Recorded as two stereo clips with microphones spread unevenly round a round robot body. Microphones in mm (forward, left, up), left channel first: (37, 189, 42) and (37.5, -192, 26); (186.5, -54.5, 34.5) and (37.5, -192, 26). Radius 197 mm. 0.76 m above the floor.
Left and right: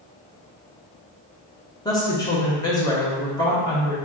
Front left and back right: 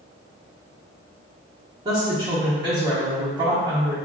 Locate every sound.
1.9 s a woman speaking: 170° left, 0.8 m